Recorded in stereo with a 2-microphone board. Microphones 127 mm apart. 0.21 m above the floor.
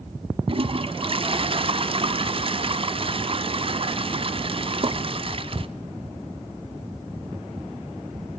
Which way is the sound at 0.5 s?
45° right (ahead or behind).